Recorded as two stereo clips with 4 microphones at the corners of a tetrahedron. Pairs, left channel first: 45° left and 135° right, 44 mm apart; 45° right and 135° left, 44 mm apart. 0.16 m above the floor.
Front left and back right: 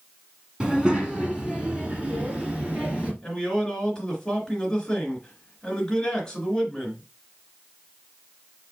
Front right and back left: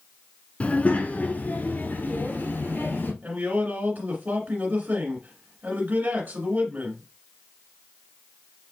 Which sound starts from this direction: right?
A child speaking, at 0.6 s.